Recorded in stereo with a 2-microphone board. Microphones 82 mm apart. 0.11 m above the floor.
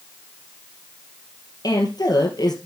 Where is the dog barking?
No dog barking in this recording.